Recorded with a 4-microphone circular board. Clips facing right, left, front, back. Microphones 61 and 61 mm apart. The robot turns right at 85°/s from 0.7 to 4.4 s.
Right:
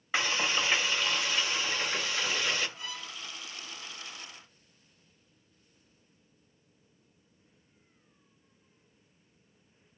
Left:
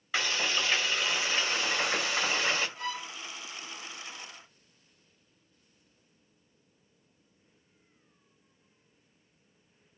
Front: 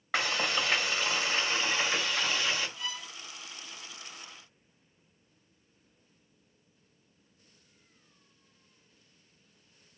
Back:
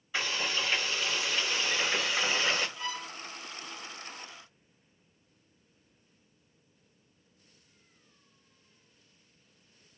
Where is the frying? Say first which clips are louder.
Right 1 dB, front 3 dB; 25° right, 1.4 m; by 2.7 s 145° left, 1.4 m.